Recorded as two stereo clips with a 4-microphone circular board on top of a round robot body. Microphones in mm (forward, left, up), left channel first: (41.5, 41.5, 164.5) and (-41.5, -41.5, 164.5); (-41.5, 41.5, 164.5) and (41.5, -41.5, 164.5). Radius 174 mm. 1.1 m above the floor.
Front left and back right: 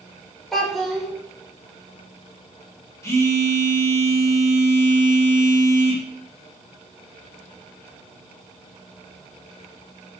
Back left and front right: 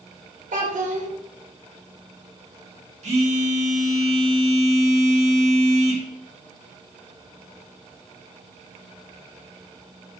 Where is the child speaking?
45° right, 3.5 m.